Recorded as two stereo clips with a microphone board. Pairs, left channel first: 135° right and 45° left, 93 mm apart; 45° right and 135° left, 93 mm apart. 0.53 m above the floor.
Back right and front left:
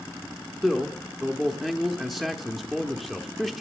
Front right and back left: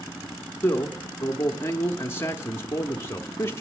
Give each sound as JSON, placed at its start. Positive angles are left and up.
{"t": 0.6, "sound": "a man speaking", "azimuth_deg": -50, "distance_m": 0.7}